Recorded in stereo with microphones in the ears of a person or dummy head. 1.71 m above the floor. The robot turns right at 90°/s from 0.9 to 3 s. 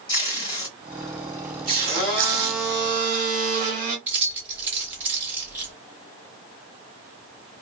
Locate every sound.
0.1 s tape being pulled: 25° left (ahead or behind), 1.1 m; by 2.8 s 30° right (ahead or behind), 1.1 m
1.8 s a blender: 125° left, 1.1 m; by 4.0 s 130° right, 1.1 m
4.1 s keys jangling: 15° right (ahead or behind), 0.9 m